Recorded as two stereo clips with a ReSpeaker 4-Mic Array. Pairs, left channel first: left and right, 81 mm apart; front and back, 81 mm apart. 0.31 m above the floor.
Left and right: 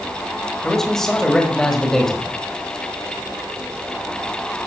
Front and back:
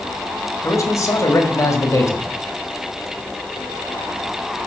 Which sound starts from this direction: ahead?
A man speaking, at 0.6 s.